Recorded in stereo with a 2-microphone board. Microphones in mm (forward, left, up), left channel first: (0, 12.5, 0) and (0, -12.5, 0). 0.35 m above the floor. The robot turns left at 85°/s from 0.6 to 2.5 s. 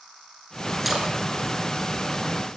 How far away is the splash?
About 2 m.